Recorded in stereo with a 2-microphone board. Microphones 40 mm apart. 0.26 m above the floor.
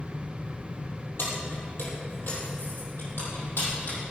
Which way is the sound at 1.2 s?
70° left (ahead or behind).